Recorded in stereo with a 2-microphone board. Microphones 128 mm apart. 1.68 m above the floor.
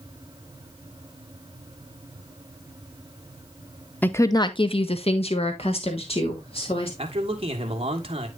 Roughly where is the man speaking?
Right.